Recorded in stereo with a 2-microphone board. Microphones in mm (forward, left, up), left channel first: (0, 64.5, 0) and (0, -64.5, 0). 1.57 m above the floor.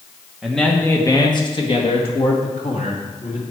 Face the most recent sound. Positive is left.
turn(degrees=65)  # may be behind; listen again after turning